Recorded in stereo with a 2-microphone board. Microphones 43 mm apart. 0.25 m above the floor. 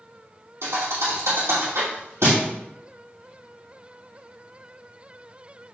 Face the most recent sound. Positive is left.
turn(degrees=-85)